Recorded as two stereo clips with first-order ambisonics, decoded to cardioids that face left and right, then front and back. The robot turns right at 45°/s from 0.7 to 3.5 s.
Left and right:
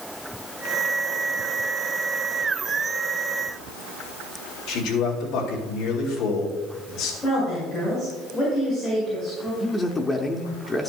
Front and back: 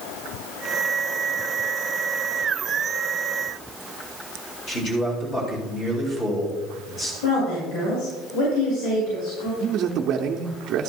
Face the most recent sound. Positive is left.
turn(degrees=160)